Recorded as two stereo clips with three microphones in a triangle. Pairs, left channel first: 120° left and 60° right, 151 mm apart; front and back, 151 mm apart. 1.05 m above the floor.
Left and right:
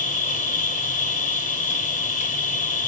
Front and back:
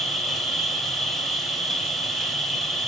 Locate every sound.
0.0 s an insect: 90° left, 2.5 m